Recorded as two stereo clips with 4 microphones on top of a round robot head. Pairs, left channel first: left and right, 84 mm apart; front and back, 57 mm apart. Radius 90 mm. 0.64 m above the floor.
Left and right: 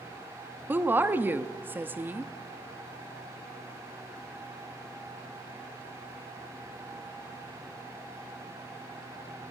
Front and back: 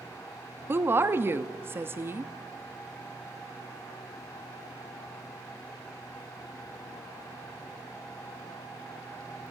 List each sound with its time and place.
0.7 s a woman speaking: 150° right, 0.9 m